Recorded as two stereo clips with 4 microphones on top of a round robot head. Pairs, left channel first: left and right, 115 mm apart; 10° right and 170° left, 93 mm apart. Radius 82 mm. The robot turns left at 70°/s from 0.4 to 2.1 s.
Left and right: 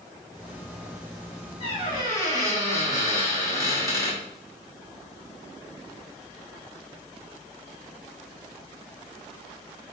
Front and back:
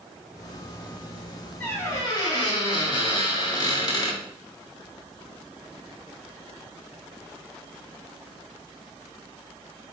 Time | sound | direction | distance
1.6 | a squeak | 60° left | 1.3 m